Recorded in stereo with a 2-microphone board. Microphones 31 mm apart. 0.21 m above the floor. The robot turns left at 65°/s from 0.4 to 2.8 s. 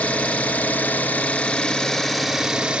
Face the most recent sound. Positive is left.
turn(degrees=-45)